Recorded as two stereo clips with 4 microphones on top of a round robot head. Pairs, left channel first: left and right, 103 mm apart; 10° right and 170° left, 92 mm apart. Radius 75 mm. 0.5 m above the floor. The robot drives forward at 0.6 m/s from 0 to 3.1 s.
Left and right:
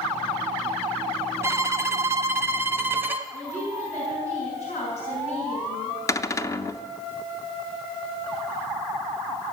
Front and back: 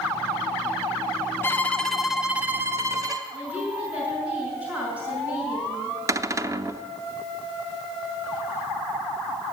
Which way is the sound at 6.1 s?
135° left.